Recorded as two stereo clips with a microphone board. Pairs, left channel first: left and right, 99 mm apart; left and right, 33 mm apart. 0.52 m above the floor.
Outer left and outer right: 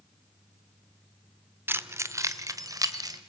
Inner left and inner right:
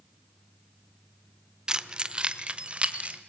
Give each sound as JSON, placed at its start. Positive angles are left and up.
{"t": 1.7, "sound": "keys jangling", "side_deg": -20, "distance_m": 0.8}